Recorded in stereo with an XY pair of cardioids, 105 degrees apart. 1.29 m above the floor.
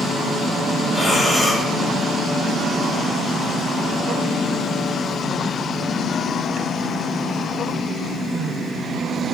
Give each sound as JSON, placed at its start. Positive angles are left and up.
{"t": 0.9, "sound": "breathing", "azimuth_deg": 10, "distance_m": 3.0}